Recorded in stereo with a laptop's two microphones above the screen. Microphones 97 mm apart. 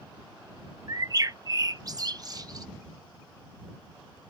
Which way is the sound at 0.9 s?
40° right (ahead or behind).